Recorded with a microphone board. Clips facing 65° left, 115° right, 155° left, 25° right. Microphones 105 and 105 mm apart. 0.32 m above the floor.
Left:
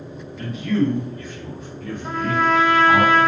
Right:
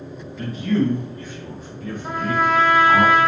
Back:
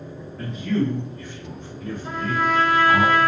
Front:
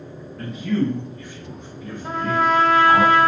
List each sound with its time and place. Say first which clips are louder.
0.4 s a man speaking: even, front 1 dB; 120° right, 1.7 m; by 3.0 s straight ahead, 1.6 m
2.0 s a trumpet: even, front 4 dB; 35° right, 0.7 m